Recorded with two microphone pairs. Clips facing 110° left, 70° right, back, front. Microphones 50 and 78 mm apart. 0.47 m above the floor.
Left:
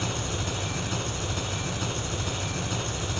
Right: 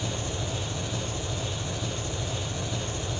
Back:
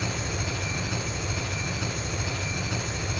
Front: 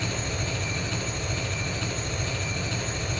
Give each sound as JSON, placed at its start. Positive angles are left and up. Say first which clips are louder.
{"t": 0.0, "sound": "an engine running", "louder": "left 1 dB, even", "azimuth_deg": 105, "distance_m": 1.3}